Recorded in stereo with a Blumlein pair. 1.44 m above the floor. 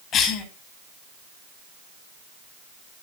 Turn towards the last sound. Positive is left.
turn(degrees=30)